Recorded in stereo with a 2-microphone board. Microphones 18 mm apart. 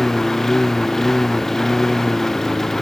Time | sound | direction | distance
0.0 | a lawn mower | 20° left (ahead or behind) | ?